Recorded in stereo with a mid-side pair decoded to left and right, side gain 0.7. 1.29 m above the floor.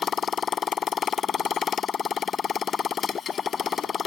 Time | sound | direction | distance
0.0 | a motorcycle | 30° left | ?